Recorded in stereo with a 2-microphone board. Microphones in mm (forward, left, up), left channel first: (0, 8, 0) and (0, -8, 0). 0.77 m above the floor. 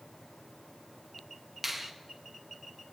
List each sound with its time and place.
1.6 s a finger snap: 15° right (ahead or behind), 0.8 m